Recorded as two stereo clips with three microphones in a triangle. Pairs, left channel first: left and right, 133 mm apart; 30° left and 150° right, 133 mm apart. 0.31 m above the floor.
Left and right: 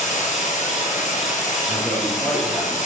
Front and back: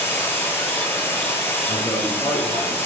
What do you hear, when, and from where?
0.0 s running water: 100° left, 2.5 m
1.7 s a man speaking: straight ahead, 3.5 m